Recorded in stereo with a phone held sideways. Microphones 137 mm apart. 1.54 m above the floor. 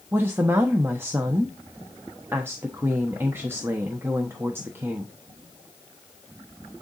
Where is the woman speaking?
15° right (ahead or behind), 1.1 m.